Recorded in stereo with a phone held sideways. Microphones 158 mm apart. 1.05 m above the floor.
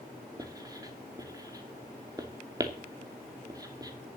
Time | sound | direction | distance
0.4 | writing | 25° right (ahead or behind) | 2.5 m